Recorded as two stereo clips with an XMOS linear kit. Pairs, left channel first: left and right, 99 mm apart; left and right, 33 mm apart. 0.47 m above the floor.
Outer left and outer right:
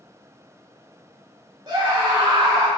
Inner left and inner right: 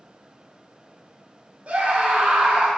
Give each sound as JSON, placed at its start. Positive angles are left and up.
{"t": 1.7, "sound": "a scream", "side_deg": -45, "distance_m": 1.7}